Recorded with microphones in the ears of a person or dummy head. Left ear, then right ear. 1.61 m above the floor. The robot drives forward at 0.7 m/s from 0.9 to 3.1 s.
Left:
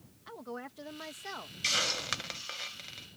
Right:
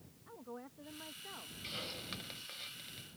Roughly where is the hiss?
Left.